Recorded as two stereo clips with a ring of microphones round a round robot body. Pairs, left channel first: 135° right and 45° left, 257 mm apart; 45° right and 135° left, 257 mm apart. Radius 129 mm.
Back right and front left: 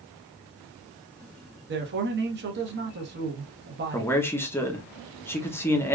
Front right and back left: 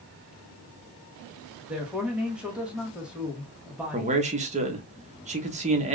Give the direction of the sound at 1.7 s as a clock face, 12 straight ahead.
10 o'clock.